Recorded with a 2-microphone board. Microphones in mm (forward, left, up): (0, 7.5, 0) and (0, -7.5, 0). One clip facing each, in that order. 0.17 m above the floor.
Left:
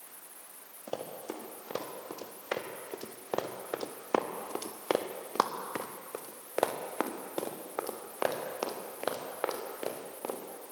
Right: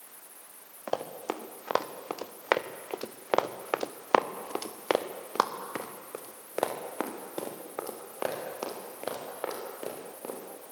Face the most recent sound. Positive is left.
turn(degrees=25)  # may be behind; listen again after turning